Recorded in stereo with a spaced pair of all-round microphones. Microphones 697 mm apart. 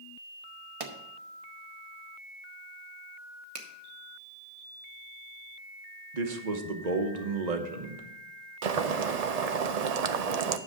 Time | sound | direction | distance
0.8 | a pop | 55° right (ahead or behind) | 1.1 m
3.5 | a finger snap | 50° right (ahead or behind) | 1.4 m
6.1 | a man speaking | 75° right (ahead or behind) | 1.2 m
8.6 | boiling | 65° right (ahead or behind) | 0.7 m